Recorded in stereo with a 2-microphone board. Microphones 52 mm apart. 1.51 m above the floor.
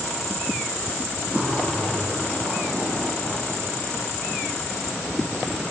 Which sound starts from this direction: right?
A zipper, at 1.3 s.